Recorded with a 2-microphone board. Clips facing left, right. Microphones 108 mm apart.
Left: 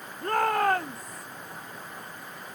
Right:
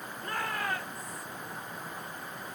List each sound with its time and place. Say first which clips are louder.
0.2 s a shout: left 11 dB; 55° left (ahead or behind); by 1.3 s 45° left (ahead or behind)